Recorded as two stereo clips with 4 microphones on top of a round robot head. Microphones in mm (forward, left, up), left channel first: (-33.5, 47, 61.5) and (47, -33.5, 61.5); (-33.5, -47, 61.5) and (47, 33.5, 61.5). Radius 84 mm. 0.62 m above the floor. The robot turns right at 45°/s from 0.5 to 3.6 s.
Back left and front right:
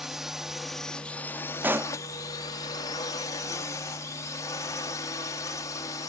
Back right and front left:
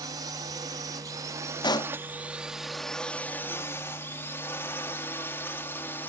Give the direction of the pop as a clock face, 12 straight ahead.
4 o'clock.